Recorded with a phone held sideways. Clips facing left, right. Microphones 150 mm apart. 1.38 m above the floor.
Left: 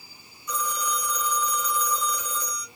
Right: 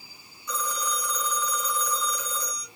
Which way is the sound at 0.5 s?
15° left (ahead or behind).